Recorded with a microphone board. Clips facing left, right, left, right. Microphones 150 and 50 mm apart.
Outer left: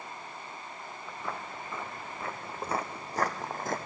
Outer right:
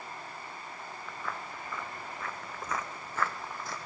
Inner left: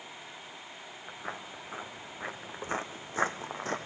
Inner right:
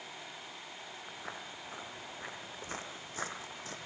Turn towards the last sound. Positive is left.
turn(degrees=50)  # may be behind; listen again after turning